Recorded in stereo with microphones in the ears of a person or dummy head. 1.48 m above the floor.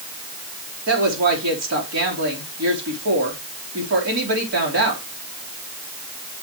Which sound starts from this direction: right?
A woman speaking, at 0.9 s.